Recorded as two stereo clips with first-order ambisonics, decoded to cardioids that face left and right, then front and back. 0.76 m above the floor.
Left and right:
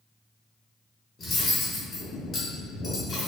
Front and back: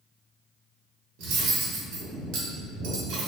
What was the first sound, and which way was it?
Cutlery clinking, 160° left.